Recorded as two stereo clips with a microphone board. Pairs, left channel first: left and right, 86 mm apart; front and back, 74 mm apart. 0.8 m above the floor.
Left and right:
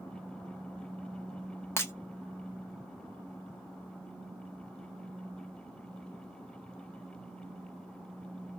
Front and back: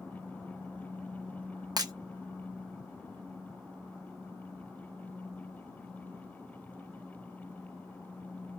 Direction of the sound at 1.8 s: 150° left.